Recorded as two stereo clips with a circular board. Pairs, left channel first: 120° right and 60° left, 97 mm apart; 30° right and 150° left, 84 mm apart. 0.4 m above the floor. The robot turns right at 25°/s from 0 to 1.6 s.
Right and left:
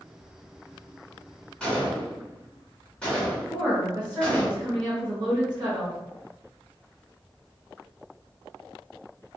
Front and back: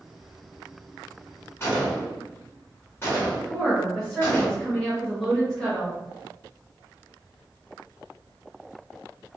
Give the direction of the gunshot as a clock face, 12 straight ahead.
2 o'clock.